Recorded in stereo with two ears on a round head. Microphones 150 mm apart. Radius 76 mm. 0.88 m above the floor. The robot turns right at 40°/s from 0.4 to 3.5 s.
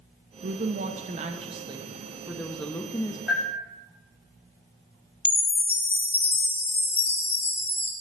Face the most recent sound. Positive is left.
turn(degrees=10)  # may be behind; listen again after turning